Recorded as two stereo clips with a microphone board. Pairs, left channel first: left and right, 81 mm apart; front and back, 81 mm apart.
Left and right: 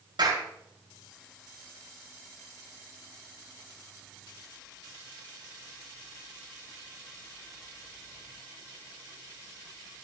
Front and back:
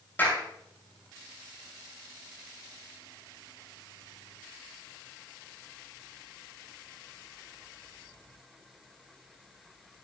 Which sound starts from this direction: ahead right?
A clap, at 0.2 s.